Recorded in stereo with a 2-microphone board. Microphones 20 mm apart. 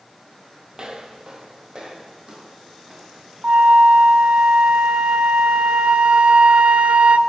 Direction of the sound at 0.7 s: 35° right (ahead or behind).